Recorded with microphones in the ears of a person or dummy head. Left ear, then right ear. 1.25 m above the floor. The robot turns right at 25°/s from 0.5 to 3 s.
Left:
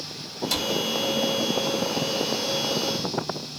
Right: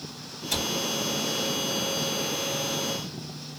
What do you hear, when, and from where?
0.5 s a cupboard door: 85° left, 2 m